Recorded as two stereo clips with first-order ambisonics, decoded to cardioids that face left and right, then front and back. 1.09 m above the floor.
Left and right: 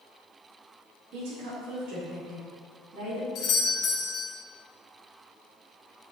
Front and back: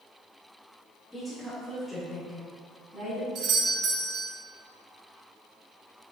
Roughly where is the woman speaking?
Right.